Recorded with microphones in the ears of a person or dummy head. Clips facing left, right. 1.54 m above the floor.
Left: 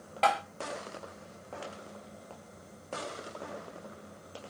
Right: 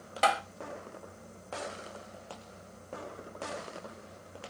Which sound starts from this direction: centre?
Tapping, at 0.2 s.